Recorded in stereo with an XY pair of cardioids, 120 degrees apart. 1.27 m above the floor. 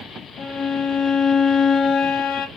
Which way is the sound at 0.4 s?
55° left.